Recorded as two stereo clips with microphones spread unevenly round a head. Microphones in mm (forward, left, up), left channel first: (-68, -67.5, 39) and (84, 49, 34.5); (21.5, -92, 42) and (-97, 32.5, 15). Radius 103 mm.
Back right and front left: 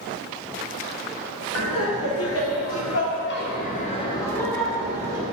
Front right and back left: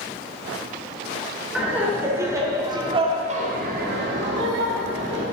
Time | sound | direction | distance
1.6 | laughter | 140° right | 3 m